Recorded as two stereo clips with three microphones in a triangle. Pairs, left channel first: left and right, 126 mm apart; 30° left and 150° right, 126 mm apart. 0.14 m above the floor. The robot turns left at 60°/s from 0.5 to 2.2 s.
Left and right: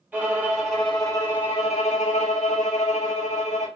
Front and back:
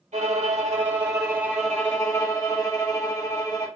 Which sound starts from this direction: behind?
A violin, at 0.1 s.